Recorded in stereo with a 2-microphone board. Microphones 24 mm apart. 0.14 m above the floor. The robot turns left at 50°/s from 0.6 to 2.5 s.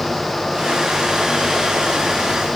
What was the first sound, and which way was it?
Only background noise.